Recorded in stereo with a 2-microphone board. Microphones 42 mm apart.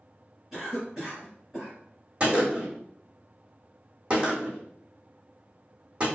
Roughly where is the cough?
Centre.